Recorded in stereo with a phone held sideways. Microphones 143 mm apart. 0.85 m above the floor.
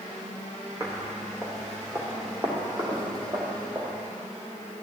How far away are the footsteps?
About 3.5 m.